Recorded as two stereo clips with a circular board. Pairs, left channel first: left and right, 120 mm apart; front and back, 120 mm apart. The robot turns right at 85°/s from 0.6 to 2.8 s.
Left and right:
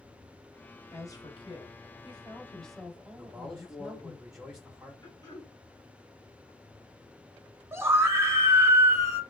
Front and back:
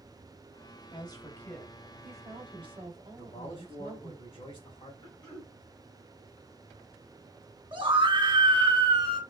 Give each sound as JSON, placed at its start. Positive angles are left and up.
{"t": 0.9, "sound": "a woman speaking", "azimuth_deg": 25, "distance_m": 1.1}
{"t": 3.2, "sound": "a man speaking", "azimuth_deg": -10, "distance_m": 2.0}
{"t": 5.0, "sound": "throat clearing", "azimuth_deg": 35, "distance_m": 1.8}
{"t": 7.7, "sound": "a scream", "azimuth_deg": -155, "distance_m": 1.2}